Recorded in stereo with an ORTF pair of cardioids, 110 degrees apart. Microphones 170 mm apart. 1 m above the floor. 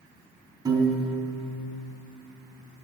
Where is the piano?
20° right, 3.5 m.